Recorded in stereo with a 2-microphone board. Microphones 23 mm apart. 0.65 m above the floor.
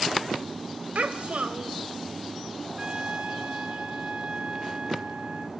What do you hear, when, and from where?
0.9 s a child speaking: 60° right (ahead or behind), 1.6 m
2.8 s a trumpet: 45° right (ahead or behind), 1.2 m